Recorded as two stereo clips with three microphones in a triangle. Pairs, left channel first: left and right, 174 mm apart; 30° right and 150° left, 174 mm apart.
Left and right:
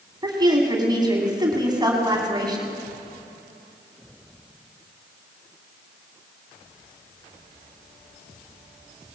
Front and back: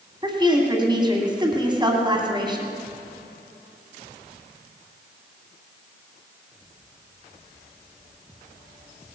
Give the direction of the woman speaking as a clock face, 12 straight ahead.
5 o'clock.